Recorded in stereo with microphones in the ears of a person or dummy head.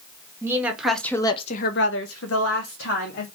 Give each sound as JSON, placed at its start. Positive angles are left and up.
{"t": 0.4, "sound": "a woman speaking", "side_deg": -15, "distance_m": 1.0}